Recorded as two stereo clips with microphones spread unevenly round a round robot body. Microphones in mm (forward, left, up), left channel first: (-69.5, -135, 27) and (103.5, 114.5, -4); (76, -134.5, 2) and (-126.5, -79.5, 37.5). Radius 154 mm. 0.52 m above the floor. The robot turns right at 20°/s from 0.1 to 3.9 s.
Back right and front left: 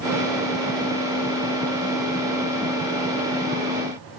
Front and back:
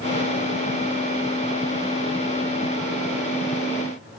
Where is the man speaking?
I don't hear a man speaking.